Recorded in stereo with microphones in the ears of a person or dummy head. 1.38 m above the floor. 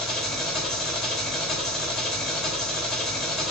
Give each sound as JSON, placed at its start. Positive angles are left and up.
{"t": 0.0, "sound": "an engine running", "side_deg": 0, "distance_m": 1.3}